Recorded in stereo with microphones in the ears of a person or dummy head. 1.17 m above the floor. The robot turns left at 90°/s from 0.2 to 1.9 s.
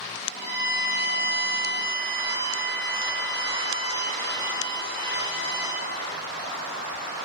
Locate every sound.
0.3 s a violin: 50° left, 2 m; by 5.8 s 90° right, 2 m